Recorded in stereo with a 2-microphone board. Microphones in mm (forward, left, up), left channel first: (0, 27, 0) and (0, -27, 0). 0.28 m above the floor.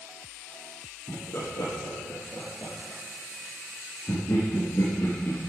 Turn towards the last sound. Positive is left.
turn(degrees=50)  # may be behind; listen again after turning